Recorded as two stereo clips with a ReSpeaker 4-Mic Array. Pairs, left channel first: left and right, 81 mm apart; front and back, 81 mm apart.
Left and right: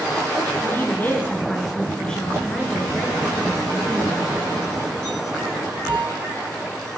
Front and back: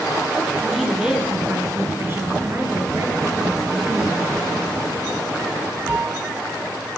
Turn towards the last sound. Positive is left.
turn(degrees=-165)